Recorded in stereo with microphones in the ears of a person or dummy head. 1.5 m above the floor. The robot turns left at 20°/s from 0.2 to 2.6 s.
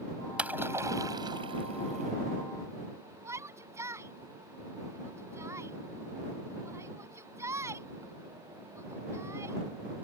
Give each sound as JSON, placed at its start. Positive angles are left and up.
{"t": 0.4, "sound": "a splash", "azimuth_deg": -10}
{"t": 3.2, "sound": "a shout", "side_deg": -15}